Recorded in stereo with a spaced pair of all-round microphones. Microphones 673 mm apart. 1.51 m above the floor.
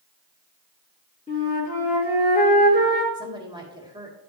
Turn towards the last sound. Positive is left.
turn(degrees=-5)  # may be behind; listen again after turning